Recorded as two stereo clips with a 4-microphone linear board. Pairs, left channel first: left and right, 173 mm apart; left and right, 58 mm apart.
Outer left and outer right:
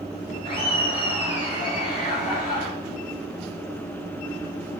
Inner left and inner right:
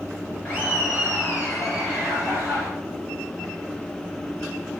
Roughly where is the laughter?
Left.